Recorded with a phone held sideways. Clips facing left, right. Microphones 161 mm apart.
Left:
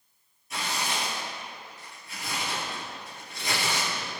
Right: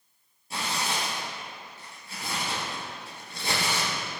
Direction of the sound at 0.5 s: 30° right (ahead or behind).